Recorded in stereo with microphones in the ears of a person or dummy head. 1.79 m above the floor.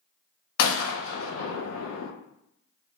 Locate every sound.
0.6 s a gunshot: 80° left, 0.7 m